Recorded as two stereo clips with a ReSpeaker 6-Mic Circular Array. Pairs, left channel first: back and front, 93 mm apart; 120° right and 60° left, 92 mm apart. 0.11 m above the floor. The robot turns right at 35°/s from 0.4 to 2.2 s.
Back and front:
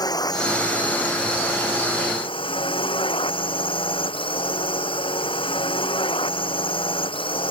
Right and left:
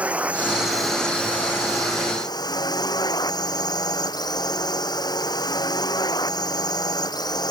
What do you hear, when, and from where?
0.0 s a drone: 135° left; by 7.5 s 160° right